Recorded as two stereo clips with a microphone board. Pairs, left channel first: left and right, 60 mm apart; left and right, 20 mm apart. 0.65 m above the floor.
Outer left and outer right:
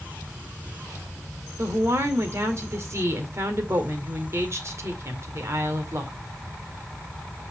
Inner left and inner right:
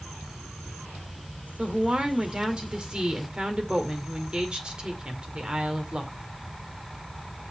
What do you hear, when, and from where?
1.6 s a woman speaking: 50° right (ahead or behind), 2.0 m